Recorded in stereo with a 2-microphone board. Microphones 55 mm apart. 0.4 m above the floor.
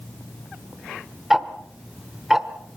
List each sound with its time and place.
1.3 s ticking: 10° right (ahead or behind), 1.2 m